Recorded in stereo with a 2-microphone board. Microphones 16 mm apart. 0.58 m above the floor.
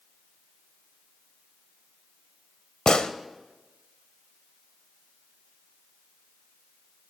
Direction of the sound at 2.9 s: 65° left (ahead or behind).